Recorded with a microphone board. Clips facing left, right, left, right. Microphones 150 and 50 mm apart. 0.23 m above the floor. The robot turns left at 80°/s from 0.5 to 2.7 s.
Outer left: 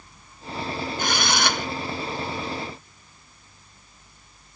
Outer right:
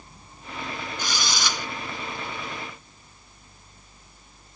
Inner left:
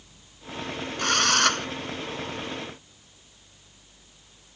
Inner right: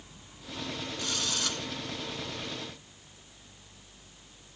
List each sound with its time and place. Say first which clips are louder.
1.0 s a drill: outer left 6 dB, inner left 14 dB; 115° left; by 1.7 s 60° left